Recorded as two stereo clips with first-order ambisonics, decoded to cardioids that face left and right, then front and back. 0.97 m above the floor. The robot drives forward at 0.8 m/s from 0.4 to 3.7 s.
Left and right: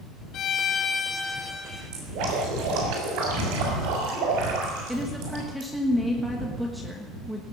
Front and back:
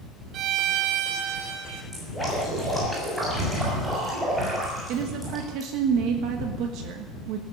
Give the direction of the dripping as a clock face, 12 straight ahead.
3 o'clock.